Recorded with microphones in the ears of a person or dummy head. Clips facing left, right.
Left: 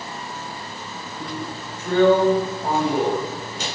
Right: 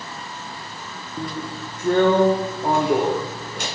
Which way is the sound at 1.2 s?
45° right (ahead or behind).